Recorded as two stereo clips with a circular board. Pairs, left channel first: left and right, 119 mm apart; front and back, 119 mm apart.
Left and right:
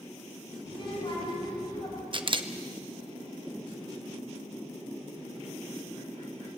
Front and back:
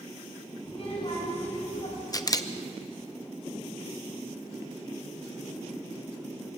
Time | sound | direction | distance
0.7 | a child speaking | 40° left | 6.5 m
2.1 | a camera shutter | 55° right | 0.9 m